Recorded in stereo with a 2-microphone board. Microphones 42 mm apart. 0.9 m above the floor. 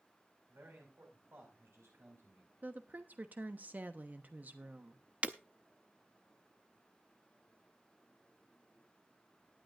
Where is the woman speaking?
40° right (ahead or behind), 1.1 m.